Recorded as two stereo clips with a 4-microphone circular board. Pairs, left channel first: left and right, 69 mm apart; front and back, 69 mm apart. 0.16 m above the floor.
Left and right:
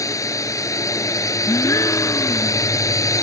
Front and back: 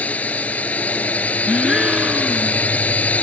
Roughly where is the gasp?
Left.